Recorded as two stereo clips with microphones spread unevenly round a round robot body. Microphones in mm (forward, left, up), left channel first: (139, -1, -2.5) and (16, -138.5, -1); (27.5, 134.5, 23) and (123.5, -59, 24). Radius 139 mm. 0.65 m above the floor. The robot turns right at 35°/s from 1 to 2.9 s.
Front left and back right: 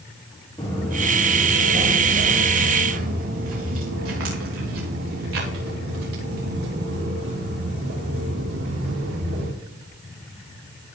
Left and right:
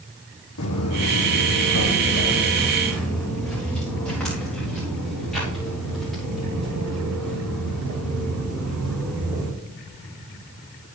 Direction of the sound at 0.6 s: 125° left.